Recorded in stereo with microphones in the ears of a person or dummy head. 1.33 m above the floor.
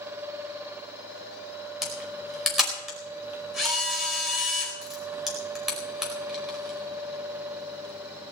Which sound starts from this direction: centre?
A camera shutter, at 1.8 s.